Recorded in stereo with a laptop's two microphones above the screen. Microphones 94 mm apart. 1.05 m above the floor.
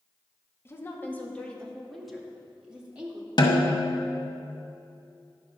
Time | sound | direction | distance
0.7 | a woman speaking | 25° left (ahead or behind) | 1.7 m
3.4 | a snare drum | 50° left (ahead or behind) | 0.9 m